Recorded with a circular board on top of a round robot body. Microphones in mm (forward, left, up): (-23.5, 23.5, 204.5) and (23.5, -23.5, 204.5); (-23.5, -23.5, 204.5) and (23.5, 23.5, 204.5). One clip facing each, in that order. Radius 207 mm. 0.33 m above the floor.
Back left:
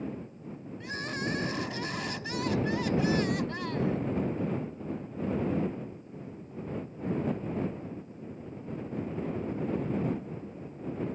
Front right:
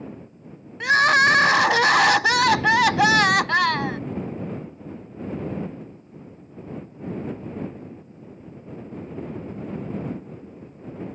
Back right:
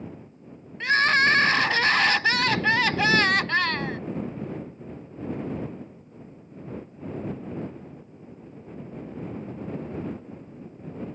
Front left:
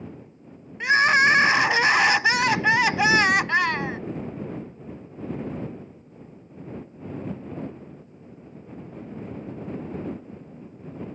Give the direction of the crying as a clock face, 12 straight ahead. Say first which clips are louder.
Front right 19 dB, front left 2 dB; 1 o'clock.